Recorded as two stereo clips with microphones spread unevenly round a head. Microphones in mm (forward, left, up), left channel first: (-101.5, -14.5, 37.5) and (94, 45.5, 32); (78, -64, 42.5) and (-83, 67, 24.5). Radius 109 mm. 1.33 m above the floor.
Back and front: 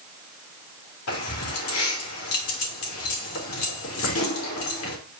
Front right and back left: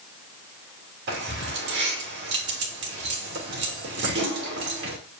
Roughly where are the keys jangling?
Behind.